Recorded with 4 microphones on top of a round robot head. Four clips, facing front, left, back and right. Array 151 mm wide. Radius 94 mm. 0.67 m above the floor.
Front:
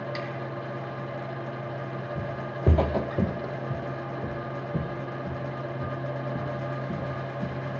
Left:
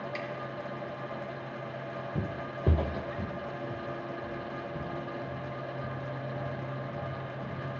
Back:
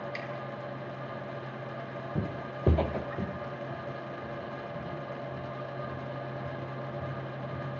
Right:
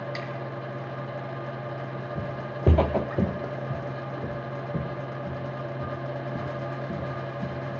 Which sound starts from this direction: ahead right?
A snare drum, at 0.1 s.